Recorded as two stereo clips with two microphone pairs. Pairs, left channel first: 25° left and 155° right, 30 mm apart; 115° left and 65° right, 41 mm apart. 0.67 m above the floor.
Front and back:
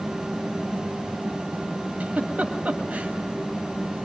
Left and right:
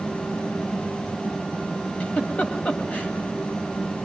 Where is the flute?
No flute in this recording.